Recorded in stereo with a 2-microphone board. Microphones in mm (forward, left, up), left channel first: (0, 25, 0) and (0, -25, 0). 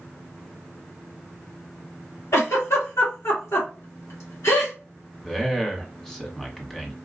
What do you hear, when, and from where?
2.3 s a giggle: 70° left (ahead or behind), 1.7 m
5.2 s a man speaking: 10° left (ahead or behind), 1.1 m